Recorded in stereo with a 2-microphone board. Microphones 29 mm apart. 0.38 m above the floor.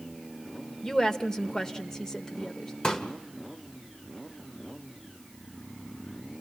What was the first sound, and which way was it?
A woman speaking, 20° left (ahead or behind).